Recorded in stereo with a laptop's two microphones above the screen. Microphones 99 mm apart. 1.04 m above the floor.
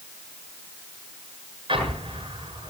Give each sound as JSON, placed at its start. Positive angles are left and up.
{"t": 1.7, "sound": "an explosion", "side_deg": -65, "distance_m": 7.5}